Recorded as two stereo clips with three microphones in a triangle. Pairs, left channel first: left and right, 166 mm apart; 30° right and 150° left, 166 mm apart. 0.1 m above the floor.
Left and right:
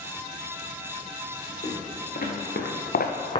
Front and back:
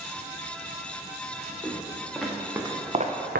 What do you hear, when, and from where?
1.6 s footsteps: 50° left, 2 m; by 3.4 s 150° left, 0.8 m